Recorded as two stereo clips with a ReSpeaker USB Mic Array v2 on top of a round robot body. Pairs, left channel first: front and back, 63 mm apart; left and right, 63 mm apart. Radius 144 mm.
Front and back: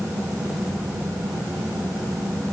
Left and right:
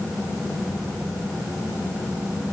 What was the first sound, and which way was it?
Only background noise.